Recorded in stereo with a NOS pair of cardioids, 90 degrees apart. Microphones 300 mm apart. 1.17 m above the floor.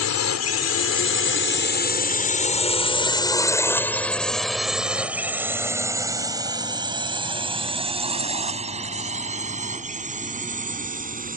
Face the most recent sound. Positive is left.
turn(degrees=-25)